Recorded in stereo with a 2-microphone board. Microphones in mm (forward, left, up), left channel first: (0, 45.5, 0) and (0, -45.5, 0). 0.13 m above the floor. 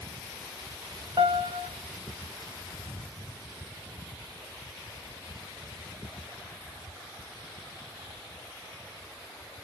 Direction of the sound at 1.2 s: 65° right (ahead or behind).